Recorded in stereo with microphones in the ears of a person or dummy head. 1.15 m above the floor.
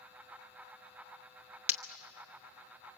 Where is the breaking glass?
10° right (ahead or behind), 0.8 m.